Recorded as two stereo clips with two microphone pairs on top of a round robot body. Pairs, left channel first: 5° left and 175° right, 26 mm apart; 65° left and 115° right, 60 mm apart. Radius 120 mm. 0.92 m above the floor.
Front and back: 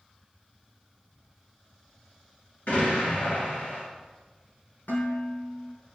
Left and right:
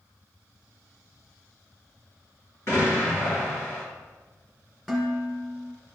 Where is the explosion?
25° left, 3.5 m.